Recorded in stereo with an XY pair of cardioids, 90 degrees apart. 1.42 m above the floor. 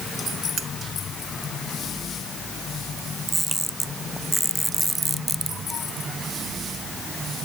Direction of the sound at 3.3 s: 10° right.